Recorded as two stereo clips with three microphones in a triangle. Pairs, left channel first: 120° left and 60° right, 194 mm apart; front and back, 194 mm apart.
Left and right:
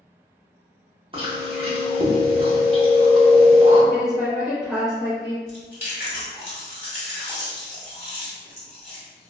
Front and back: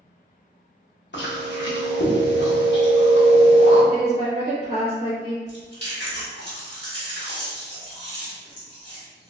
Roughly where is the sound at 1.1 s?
Ahead.